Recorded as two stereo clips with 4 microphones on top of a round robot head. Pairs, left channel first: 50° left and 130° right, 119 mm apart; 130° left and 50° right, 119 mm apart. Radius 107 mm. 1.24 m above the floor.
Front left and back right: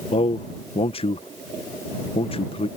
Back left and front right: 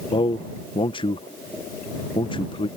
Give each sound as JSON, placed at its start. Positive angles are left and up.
{"t": 0.1, "sound": "a man speaking", "azimuth_deg": 85}